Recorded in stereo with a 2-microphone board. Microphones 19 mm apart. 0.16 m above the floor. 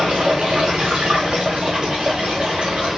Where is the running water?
70° right (ahead or behind), 4.5 m.